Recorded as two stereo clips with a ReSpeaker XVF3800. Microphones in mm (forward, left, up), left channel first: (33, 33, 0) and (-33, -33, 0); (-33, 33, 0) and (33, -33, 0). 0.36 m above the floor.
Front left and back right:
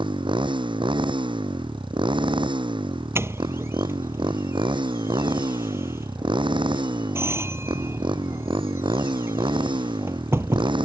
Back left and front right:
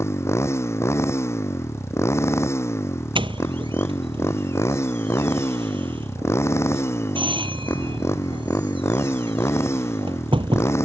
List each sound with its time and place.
0.0 s a motorcycle: 165° right
3.1 s a doorbell: 70° right